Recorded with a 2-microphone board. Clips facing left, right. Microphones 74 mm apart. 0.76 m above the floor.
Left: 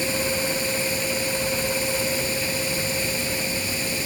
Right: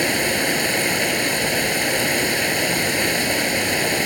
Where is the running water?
75° right (ahead or behind).